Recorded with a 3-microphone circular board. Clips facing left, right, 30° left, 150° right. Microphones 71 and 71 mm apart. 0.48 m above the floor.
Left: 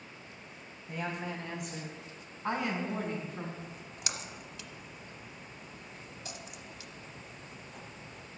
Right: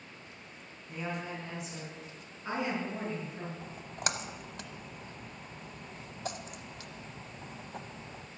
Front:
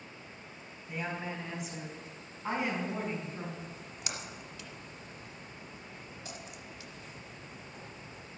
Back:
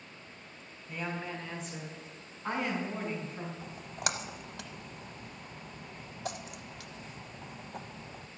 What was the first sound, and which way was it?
A woman speaking, 105° left.